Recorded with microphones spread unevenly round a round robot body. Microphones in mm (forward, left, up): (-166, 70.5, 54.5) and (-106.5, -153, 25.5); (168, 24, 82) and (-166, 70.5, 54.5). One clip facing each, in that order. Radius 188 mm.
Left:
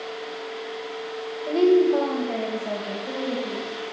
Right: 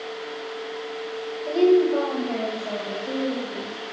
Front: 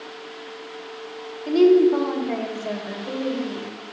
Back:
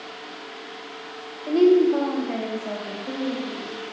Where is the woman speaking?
15° right, 1.3 m; by 3.7 s 10° left, 2 m.